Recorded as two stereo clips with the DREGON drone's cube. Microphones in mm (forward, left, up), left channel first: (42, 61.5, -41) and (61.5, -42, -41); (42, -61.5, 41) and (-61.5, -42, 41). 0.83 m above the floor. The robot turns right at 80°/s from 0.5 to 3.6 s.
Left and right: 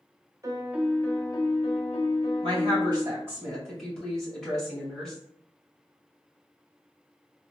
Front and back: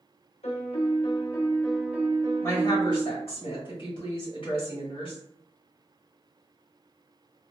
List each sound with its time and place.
0.4 s a piano: 20° right, 0.6 m; by 3.2 s 160° right, 0.6 m
2.4 s a woman speaking: 80° right, 1.9 m; by 5.2 s 15° left, 1.9 m